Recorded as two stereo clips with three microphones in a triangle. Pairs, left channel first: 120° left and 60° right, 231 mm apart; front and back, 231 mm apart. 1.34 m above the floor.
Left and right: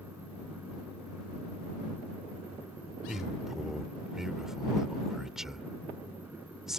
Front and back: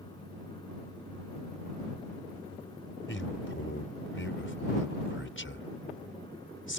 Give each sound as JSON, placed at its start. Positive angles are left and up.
{"t": 3.1, "sound": "a man speaking", "azimuth_deg": 30}